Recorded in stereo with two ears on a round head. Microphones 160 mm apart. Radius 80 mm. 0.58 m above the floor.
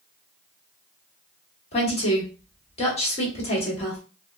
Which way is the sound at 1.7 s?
35° left (ahead or behind).